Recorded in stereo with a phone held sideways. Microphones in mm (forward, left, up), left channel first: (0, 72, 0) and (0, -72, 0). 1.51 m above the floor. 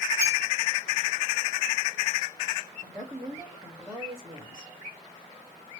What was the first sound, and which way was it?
A clink, 20° right (ahead or behind).